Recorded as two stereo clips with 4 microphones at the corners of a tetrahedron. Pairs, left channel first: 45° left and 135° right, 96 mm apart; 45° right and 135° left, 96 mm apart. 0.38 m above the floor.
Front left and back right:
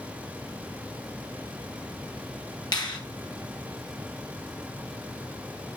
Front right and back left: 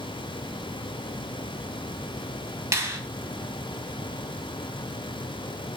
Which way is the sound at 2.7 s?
80° left.